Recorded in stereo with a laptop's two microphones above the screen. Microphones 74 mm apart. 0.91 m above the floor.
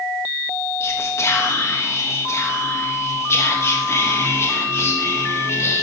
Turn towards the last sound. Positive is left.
turn(degrees=40)  # may be behind; listen again after turning